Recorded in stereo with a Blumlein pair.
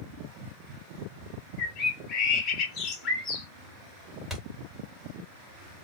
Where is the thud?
10° left, 1.8 m.